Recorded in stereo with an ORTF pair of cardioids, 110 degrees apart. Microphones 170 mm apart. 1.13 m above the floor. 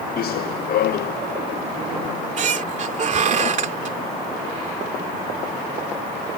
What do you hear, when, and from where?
0.2 s running footsteps: 65° left
2.0 s a squeak: 45° right